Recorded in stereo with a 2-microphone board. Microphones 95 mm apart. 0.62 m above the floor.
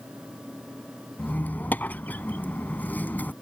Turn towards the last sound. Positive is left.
turn(degrees=20)  # may be behind; listen again after turning